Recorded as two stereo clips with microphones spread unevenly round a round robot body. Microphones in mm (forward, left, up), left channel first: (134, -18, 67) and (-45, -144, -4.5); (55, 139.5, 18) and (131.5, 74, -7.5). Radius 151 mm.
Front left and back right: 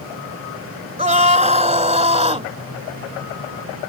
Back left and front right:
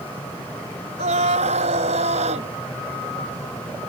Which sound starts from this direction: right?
A scream, at 1.0 s.